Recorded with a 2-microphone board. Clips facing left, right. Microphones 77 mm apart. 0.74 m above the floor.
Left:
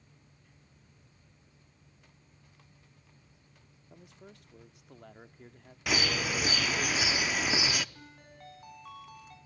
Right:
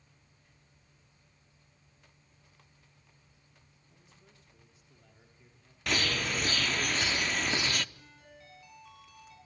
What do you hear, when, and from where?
3.9 s a man speaking: 65° left (ahead or behind), 1.3 m
5.9 s a bird: 5° left (ahead or behind), 0.6 m
8.0 s a ringtone: 50° left (ahead or behind), 5.5 m